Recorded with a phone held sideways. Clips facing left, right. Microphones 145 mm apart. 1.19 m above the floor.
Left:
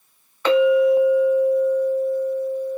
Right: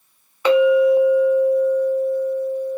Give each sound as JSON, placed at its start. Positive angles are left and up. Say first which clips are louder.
{"t": 0.5, "sound": "a clink", "louder": "right 2 dB", "side_deg": -10, "distance_m": 1.4}